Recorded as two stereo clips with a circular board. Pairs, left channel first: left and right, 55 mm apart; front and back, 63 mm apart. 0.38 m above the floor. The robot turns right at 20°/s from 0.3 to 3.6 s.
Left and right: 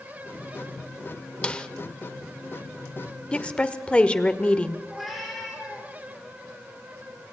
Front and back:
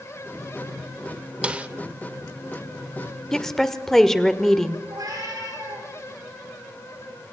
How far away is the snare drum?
About 1.0 m.